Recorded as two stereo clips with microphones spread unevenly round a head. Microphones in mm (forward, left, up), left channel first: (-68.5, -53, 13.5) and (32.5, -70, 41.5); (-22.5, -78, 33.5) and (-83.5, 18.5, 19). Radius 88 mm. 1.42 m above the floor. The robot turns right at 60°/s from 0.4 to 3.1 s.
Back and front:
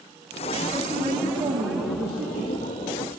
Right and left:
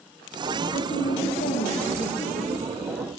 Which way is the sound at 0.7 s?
85° right.